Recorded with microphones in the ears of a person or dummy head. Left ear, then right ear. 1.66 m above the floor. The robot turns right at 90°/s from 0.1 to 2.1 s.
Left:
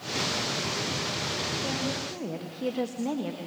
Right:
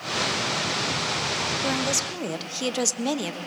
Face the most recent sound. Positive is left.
turn(degrees=-85)